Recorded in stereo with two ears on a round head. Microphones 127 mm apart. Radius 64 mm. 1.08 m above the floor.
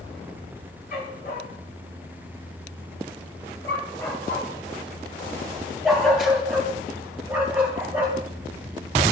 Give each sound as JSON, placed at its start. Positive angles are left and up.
{"t": 0.9, "sound": "a dog barking", "side_deg": 55, "distance_m": 2.5}